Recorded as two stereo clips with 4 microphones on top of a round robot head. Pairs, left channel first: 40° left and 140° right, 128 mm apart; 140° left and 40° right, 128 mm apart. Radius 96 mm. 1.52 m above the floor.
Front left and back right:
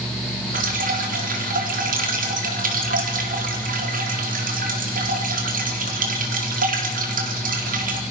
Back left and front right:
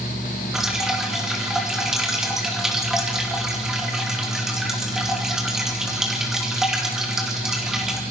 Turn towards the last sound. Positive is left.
turn(degrees=-125)